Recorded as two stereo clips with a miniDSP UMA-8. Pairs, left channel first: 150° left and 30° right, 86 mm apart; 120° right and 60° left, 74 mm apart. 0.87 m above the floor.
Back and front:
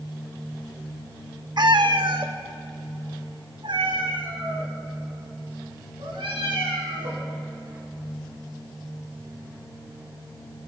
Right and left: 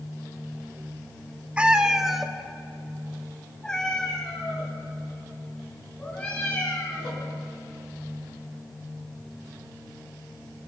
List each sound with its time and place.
1.6 s a cat meowing: 10° right, 0.7 m; by 7.3 s 45° right, 4 m